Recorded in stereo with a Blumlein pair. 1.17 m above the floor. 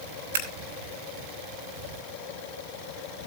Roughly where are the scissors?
Ahead right.